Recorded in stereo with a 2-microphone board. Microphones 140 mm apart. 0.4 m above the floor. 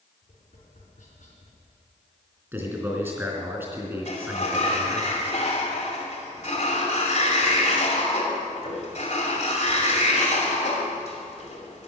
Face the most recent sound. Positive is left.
turn(degrees=55)  # may be behind; listen again after turning